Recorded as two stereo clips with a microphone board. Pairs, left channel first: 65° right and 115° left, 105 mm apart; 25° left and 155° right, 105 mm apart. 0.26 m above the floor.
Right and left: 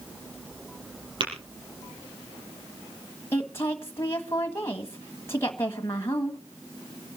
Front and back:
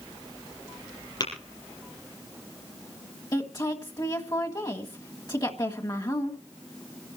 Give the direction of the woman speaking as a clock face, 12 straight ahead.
12 o'clock.